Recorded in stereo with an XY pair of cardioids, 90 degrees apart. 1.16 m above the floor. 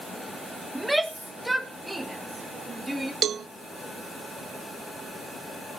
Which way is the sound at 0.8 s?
10° right.